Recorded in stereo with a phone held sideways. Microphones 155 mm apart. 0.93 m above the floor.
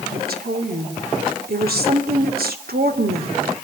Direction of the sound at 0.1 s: 80° right.